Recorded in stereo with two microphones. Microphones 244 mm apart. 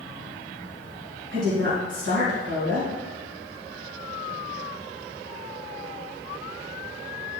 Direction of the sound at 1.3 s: 50° right (ahead or behind).